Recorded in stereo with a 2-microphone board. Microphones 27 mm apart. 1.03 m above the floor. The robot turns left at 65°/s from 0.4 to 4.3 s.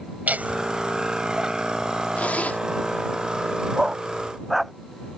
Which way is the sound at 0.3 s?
85° right.